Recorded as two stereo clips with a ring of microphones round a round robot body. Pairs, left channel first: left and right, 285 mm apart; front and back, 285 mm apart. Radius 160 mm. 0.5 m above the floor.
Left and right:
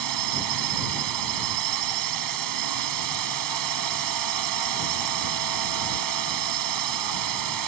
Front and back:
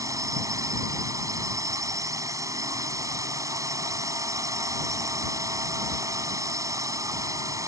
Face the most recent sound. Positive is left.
turn(degrees=-100)